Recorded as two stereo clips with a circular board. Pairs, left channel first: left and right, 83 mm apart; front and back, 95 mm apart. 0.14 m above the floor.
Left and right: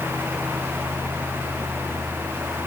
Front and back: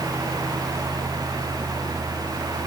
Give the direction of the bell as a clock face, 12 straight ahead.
No bell in this recording.